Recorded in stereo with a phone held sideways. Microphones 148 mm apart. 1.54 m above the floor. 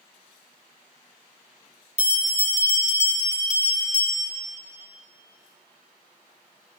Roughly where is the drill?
I don't hear a drill.